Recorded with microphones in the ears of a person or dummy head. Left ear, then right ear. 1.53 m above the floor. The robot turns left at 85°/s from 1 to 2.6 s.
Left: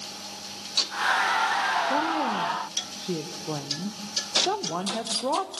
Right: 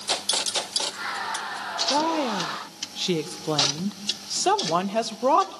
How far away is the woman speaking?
About 1.2 m.